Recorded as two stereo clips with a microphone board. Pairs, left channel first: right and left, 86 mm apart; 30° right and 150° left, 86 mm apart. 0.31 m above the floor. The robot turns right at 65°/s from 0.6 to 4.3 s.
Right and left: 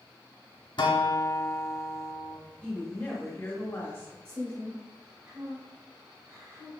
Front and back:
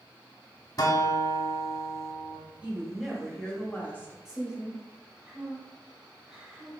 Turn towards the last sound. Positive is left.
turn(degrees=75)